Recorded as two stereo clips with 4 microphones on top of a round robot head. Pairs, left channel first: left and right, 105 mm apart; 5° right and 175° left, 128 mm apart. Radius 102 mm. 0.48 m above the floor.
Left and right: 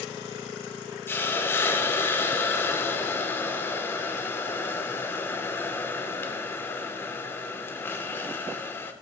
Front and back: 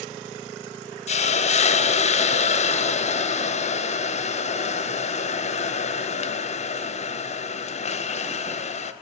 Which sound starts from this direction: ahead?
A hiss, at 1.1 s.